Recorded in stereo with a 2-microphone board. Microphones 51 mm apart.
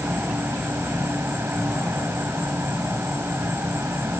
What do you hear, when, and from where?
0.0 s an insect: 55° right (ahead or behind), 4 m